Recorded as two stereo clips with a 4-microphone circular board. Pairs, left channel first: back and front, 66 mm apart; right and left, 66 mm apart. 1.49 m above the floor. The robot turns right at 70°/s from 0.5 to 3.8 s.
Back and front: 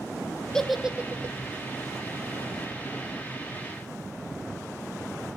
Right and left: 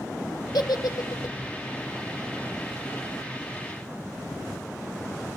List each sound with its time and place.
0.5 s a giggle: 100° right, 1.2 m; by 1.4 s 45° right, 1.2 m